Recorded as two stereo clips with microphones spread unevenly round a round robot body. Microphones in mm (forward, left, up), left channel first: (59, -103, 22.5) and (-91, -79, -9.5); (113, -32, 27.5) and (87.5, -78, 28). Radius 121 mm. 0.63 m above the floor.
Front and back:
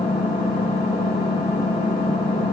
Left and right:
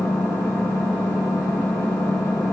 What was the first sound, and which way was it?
An engine running, 65° left.